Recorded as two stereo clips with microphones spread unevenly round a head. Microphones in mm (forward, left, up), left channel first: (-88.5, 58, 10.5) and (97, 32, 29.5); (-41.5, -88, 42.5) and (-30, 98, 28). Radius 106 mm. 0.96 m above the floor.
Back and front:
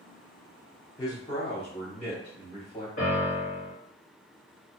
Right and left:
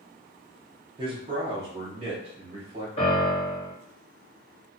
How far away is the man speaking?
About 0.7 m.